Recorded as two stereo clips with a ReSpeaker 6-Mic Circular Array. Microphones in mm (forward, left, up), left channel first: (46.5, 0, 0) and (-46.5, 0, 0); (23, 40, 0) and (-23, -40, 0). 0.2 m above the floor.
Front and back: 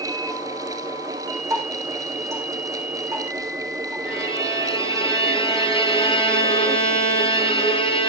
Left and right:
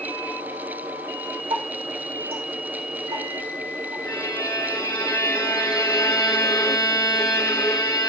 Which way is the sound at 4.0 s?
15° left.